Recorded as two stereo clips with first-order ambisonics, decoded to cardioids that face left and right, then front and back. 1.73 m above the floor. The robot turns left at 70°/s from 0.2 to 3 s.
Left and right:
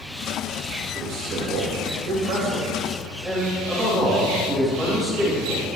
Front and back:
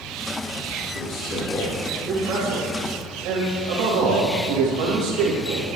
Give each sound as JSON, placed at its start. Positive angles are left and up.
{"t": 0.9, "sound": "a man speaking", "azimuth_deg": -30, "distance_m": 3.5}